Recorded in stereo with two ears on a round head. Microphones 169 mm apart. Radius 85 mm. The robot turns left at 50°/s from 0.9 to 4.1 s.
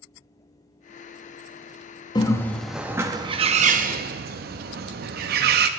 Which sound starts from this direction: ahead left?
A bird, at 2.1 s.